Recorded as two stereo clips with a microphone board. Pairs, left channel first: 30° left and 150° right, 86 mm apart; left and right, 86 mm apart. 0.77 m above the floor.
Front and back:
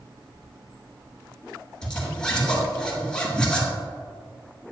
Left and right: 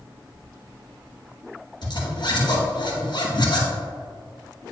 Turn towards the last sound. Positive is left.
turn(degrees=110)